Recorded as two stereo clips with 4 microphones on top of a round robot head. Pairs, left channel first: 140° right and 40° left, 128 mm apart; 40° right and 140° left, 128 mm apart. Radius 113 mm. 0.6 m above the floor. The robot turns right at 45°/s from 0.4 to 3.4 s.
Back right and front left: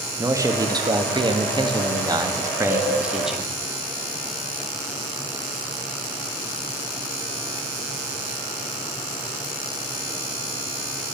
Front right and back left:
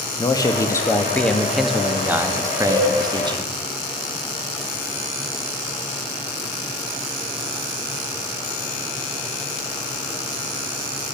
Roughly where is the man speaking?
Ahead.